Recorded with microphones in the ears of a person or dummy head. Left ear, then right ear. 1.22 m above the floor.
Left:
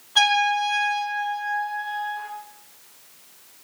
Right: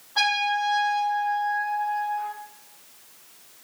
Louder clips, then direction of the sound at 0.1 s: Left 4 dB; 75° left (ahead or behind).